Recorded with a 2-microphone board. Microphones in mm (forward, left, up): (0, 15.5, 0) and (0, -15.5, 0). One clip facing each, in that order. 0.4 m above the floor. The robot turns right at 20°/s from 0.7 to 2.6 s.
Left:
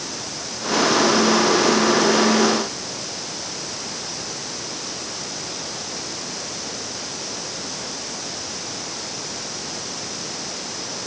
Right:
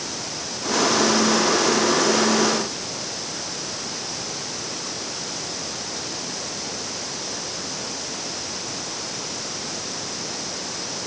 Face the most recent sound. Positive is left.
No sound to turn to.